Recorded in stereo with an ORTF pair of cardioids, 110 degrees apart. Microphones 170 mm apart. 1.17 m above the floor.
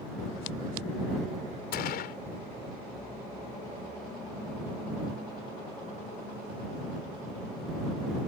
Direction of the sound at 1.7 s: 65° left.